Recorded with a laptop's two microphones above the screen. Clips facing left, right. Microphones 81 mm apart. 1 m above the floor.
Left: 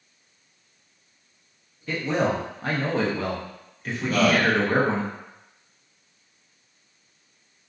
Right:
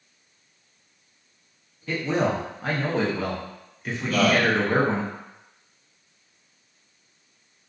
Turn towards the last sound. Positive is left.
turn(degrees=35)  # may be behind; listen again after turning